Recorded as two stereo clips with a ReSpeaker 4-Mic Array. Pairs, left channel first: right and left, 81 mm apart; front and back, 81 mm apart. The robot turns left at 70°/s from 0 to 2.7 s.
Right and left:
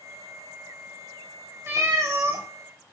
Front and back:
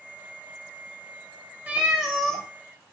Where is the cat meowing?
125° left, 0.5 m; by 2.5 s 70° left, 0.5 m.